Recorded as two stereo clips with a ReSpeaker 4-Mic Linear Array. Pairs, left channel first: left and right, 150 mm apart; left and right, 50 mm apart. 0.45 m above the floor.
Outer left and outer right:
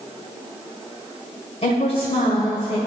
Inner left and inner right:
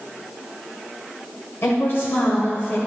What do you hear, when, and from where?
1.6 s a woman speaking: 45° left (ahead or behind), 1.8 m